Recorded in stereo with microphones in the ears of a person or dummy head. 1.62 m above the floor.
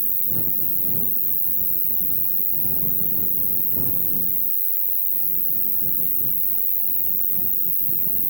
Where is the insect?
10° right (ahead or behind).